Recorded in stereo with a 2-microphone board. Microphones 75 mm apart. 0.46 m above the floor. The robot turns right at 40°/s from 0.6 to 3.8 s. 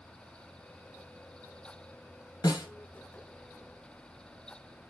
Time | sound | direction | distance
2.4 | a snare drum | 70° left (ahead or behind) | 2 m